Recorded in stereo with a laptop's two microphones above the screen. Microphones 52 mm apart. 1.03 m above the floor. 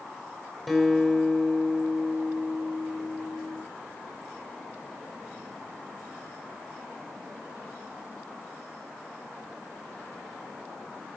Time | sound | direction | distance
0.7 | a guitar | centre (ahead or behind) | 5 m